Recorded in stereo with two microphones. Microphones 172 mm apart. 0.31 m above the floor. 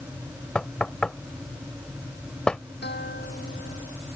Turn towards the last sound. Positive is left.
turn(degrees=75)  # may be behind; listen again after turning